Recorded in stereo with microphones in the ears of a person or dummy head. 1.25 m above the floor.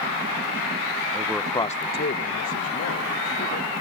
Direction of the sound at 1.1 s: 15° right (ahead or behind).